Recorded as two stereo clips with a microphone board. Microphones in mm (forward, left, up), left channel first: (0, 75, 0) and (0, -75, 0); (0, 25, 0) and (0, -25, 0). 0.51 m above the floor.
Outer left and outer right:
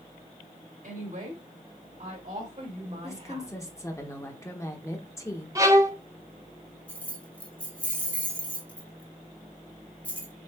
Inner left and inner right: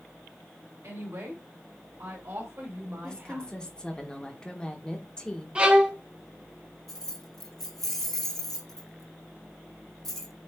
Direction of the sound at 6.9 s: 10° left (ahead or behind).